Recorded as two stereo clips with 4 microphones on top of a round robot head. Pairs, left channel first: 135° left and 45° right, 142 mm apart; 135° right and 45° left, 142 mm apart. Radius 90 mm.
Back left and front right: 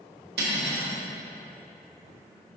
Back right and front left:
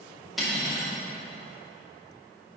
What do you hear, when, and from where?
0.4 s cutlery clinking: 40° right, 2 m